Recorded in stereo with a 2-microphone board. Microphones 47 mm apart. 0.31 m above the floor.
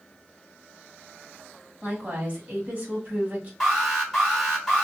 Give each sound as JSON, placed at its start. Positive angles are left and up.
{"t": 1.8, "sound": "a woman speaking", "side_deg": -35, "distance_m": 1.8}
{"t": 3.6, "sound": "an alarm", "side_deg": 5, "distance_m": 1.3}